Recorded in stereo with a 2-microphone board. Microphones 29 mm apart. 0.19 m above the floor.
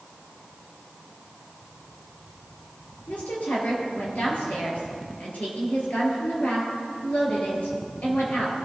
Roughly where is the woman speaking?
Left.